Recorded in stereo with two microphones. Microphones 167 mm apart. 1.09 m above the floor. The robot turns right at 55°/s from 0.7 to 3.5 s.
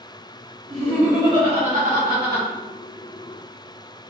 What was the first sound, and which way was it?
Laughter, 175° left.